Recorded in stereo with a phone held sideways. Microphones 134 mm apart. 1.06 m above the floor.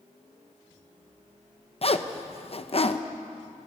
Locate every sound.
1.8 s a zipper: 45° left (ahead or behind), 0.9 m